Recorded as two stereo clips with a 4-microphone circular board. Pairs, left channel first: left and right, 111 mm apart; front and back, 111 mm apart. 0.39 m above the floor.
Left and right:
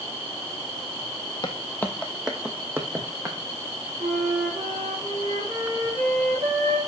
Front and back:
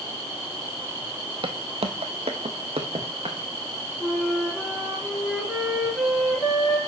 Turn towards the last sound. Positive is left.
turn(degrees=-85)